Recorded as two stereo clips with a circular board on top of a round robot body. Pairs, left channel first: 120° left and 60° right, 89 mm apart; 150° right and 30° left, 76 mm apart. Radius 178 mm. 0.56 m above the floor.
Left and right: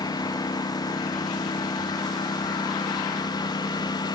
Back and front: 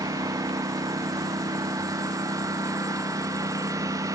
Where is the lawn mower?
75° left.